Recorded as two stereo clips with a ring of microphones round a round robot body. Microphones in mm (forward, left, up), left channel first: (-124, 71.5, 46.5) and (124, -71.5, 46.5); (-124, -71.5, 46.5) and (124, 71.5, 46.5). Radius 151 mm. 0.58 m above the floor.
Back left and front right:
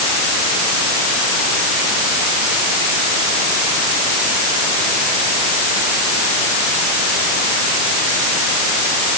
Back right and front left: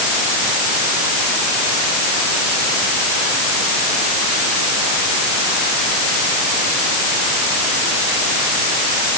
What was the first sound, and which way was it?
Only background noise.